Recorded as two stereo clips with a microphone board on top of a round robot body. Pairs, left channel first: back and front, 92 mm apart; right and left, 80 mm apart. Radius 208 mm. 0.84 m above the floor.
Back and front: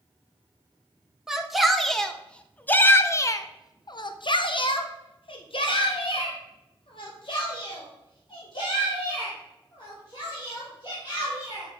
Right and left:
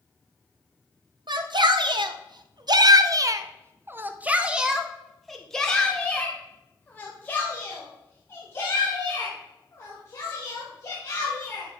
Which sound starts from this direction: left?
A shout, at 1.3 s.